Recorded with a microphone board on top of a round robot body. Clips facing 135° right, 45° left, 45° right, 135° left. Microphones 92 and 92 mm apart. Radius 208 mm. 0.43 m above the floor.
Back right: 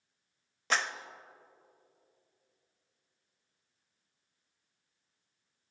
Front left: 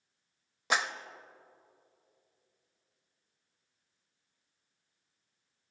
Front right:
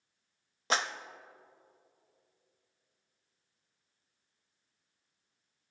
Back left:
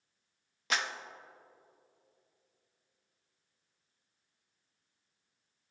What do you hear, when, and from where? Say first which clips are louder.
0.7 s a clap: front left 1 dB, front right 3 dB; 20° right, 0.9 m